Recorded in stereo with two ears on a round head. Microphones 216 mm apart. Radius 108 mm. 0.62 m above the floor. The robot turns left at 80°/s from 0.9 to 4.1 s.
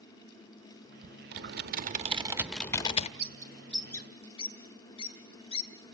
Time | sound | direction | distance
1.3 | typing on a keyboard | 45° right (ahead or behind) | 1.0 m
3.2 | a bird | 45° right (ahead or behind) | 2.5 m